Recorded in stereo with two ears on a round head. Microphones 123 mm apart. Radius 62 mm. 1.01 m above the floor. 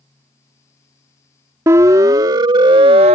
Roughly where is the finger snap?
I don't hear a finger snap.